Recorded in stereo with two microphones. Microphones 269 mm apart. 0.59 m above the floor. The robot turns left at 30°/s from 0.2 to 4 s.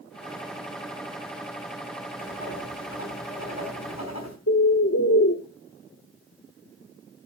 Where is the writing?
150° left, 3.5 m; by 4.4 s 95° left, 3.5 m.